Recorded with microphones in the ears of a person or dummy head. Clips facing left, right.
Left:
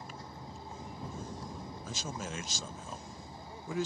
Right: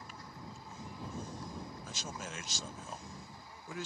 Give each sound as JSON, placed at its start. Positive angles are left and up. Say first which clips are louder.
{"t": 0.0, "sound": "a vehicle", "louder": "left 3 dB", "side_deg": 30}
{"t": 1.9, "sound": "a man speaking", "louder": "left 4 dB", "side_deg": 75}